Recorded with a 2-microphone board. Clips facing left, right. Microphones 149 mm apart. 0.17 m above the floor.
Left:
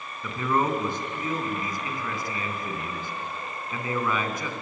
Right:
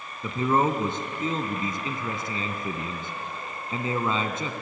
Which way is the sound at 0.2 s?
25° right (ahead or behind).